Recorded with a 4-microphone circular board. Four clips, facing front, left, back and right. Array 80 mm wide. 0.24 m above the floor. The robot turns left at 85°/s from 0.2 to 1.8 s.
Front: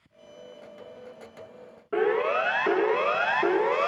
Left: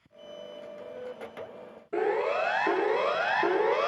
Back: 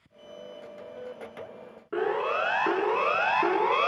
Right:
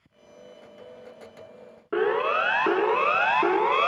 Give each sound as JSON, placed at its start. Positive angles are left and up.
{"t": 1.9, "sound": "a siren", "azimuth_deg": -85, "distance_m": 4.5}